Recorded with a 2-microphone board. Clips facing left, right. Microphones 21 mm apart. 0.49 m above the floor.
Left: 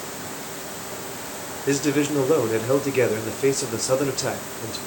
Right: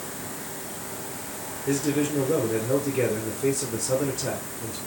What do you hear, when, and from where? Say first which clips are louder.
1.7 s a man speaking: left 3 dB; 40° left (ahead or behind), 1.1 m